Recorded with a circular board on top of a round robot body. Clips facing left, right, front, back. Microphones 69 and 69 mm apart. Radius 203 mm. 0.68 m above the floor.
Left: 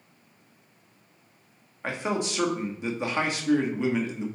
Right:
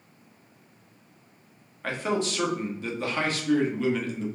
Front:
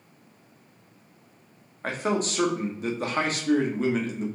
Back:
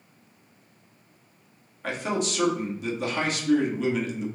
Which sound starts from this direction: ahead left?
A man speaking, at 1.8 s.